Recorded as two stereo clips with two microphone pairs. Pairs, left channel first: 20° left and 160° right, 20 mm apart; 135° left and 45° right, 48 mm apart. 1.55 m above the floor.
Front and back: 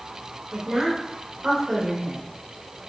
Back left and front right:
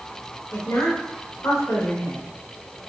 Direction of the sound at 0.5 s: 135° left.